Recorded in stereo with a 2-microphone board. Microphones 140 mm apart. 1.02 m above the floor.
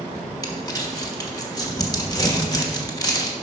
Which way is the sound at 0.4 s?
25° left (ahead or behind).